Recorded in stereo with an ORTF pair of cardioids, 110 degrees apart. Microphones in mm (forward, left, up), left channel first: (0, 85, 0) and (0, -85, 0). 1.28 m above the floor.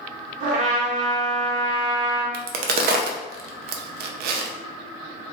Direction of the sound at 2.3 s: 65° right.